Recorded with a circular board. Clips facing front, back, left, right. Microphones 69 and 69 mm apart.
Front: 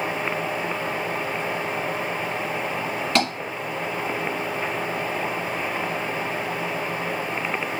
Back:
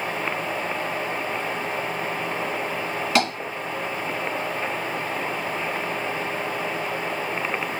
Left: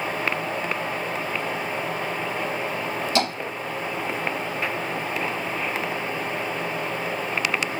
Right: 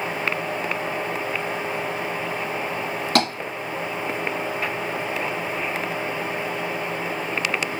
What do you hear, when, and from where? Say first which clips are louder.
3.1 s tapping: back 1 dB, right 3 dB; 95° right, 2 m